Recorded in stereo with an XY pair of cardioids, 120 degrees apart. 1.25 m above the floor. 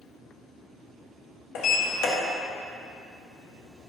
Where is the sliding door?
70° left, 1.3 m.